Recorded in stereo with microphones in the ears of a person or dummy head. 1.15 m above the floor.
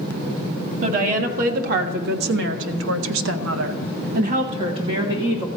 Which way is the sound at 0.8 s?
45° right (ahead or behind).